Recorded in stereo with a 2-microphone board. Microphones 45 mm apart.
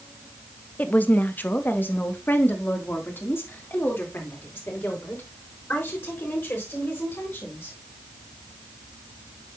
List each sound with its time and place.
0.8 s a woman speaking: 35° left (ahead or behind), 0.8 m; by 7.8 s 60° left (ahead or behind), 4.5 m